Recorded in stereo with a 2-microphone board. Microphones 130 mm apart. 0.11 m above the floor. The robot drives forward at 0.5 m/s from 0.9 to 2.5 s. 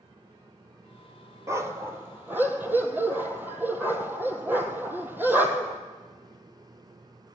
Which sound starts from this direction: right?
A dog barking, at 1.5 s.